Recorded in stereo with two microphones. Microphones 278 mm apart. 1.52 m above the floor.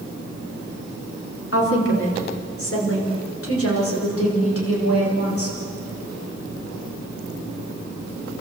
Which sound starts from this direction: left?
A woman speaking, at 1.5 s.